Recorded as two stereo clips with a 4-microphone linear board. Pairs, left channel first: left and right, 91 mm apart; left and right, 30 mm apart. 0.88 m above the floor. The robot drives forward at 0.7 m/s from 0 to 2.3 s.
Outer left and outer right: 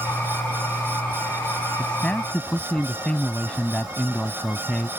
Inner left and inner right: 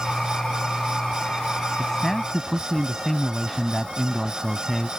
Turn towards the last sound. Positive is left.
turn(degrees=10)  # may be behind; listen again after turning